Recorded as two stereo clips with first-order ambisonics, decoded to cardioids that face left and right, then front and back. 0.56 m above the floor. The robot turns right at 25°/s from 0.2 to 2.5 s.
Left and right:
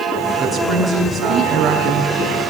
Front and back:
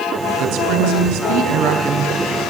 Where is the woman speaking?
160° left, 4 m; by 2.5 s 150° right, 4 m.